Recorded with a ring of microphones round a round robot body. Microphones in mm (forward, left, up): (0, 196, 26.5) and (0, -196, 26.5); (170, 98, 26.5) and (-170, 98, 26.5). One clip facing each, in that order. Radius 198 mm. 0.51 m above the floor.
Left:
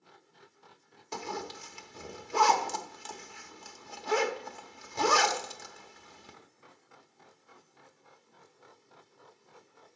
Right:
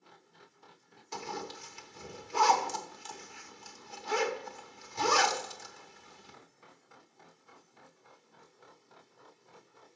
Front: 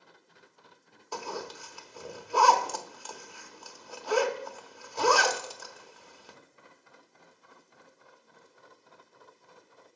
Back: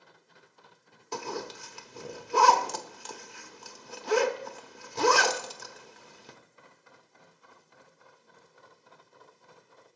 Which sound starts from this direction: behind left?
A zipper, at 1.1 s.